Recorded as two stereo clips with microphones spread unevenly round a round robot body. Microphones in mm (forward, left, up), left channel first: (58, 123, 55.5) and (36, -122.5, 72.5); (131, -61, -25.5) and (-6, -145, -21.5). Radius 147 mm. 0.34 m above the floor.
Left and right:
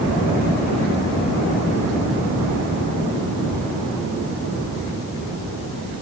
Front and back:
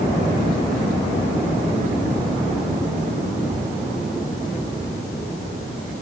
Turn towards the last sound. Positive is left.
No sound to turn to.